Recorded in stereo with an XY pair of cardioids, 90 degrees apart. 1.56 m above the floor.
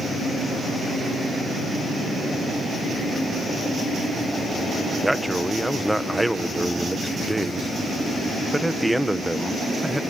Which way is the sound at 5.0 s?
5° right.